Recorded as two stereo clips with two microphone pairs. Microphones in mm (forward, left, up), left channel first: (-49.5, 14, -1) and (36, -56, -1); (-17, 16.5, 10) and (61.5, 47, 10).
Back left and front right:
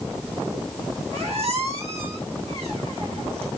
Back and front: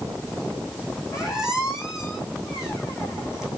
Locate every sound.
1.1 s a squeak: 60° right, 3.5 m